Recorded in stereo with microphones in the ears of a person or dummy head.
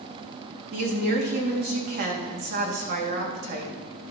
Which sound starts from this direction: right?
A woman speaking, at 0.7 s.